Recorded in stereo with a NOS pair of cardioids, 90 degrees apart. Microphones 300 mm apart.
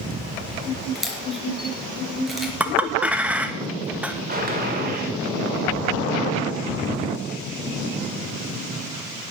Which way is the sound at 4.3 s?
30° right.